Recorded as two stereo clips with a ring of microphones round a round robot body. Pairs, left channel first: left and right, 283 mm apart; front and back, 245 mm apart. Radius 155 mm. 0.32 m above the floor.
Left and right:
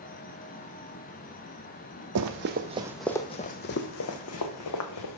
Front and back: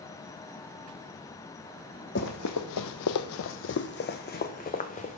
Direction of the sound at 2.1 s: 55° right.